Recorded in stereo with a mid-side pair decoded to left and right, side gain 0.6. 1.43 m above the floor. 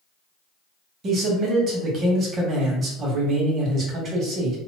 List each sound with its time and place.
1.0 s a man speaking: 45° right, 1.4 m